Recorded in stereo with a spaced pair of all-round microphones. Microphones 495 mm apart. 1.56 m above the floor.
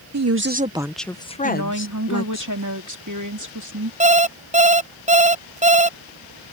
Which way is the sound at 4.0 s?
15° right (ahead or behind).